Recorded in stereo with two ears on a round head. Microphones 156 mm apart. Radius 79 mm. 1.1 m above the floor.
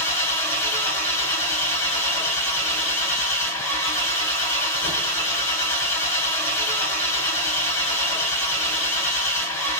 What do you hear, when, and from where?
0.0 s an engine running: 15° left (ahead or behind), 1.9 m